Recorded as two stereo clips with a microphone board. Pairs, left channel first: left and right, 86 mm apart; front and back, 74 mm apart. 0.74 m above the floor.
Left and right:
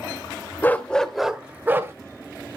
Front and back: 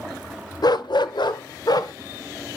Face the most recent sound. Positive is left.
turn(degrees=-30)